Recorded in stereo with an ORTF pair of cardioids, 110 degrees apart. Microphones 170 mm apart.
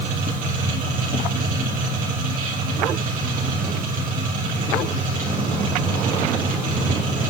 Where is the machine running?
50° right, 3.5 m.